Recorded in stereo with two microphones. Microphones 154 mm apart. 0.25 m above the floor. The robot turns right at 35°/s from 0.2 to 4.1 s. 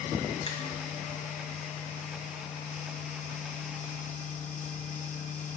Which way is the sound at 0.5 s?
45° left (ahead or behind).